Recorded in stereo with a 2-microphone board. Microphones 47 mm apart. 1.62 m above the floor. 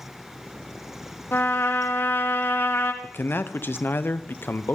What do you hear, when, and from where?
1.3 s a trumpet: 55° left (ahead or behind), 1.5 m
3.0 s a man speaking: 55° left (ahead or behind), 0.9 m